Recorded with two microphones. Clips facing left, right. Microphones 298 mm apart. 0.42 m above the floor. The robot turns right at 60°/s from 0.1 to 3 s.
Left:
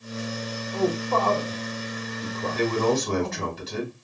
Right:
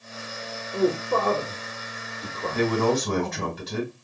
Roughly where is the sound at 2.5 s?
Right.